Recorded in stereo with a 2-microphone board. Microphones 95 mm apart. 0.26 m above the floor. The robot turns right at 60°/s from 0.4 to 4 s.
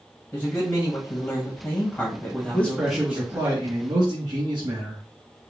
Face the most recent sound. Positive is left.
turn(degrees=-115)